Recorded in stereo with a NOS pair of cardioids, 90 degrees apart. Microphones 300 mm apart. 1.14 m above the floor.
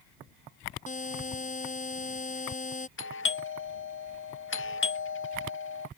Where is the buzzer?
25° left.